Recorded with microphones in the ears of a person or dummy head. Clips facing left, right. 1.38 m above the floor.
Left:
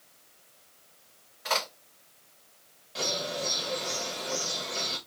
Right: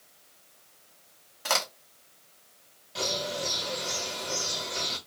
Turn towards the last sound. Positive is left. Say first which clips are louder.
# right 1 dB
turn(degrees=-5)  # may be behind; listen again after turning